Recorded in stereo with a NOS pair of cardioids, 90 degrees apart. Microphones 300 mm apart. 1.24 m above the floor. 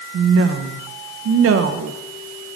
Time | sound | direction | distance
0.1 | a woman speaking | 50° right | 1.1 m